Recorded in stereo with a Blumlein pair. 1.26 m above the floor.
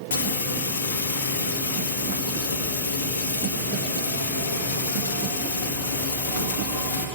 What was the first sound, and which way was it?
Frying, 60° left.